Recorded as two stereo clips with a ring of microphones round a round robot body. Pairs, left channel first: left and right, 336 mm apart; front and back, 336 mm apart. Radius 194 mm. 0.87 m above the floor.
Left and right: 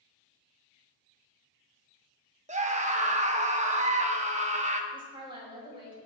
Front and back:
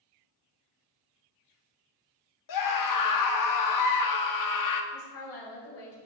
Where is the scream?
20° right, 2.0 m.